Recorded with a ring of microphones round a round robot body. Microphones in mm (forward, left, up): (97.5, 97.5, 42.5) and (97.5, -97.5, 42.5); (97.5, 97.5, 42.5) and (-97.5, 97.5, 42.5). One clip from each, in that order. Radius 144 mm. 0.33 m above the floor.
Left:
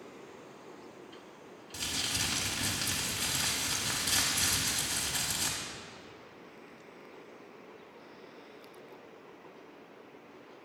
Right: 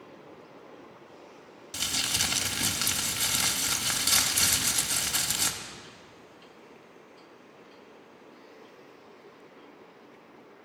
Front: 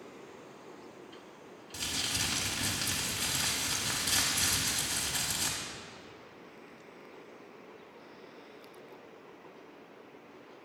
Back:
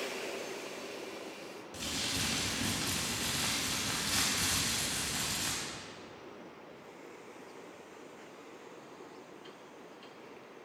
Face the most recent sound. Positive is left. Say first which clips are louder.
# right 5 dB, front 2 dB
turn(degrees=-70)